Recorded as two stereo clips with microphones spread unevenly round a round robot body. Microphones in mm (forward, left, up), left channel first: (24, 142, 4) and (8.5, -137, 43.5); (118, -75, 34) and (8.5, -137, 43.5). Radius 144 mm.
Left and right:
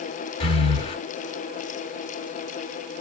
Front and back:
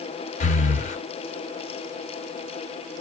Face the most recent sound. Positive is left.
turn(degrees=20)